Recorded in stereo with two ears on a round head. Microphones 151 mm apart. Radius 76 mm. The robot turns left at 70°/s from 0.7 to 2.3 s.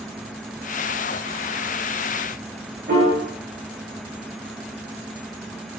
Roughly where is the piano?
Right.